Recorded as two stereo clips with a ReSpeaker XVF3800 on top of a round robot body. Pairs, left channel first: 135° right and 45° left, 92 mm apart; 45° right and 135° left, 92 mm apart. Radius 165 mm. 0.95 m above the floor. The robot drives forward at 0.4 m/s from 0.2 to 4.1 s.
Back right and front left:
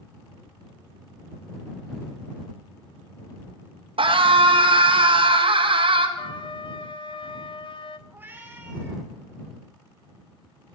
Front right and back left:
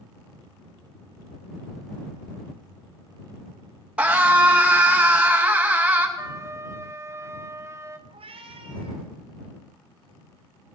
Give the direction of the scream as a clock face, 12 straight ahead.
10 o'clock.